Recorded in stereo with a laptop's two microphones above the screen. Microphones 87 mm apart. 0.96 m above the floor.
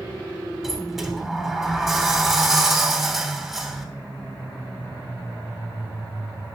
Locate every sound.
0.6 s a sliding door: centre (ahead or behind), 3 m